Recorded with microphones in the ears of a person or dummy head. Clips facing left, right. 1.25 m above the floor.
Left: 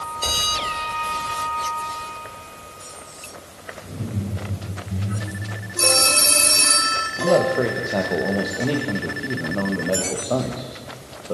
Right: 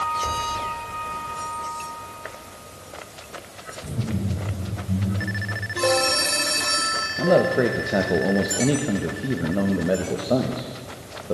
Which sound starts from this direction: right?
Laughter, at 3.8 s.